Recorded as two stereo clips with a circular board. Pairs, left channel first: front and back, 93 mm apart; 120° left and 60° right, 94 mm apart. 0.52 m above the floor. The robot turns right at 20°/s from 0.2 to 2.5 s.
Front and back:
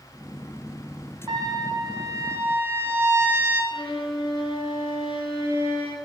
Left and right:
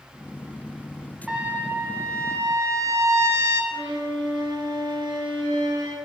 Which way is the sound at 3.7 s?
25° right.